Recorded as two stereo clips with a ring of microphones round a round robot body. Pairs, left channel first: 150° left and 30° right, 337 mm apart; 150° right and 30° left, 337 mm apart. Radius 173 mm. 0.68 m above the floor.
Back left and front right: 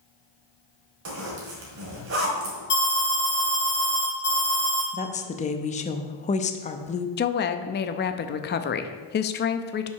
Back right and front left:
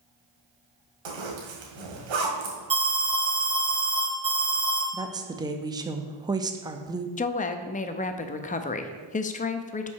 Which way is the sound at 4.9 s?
100° left.